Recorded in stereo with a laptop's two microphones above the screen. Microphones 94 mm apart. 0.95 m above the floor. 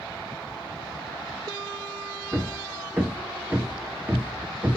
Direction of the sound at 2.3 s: 25° right (ahead or behind).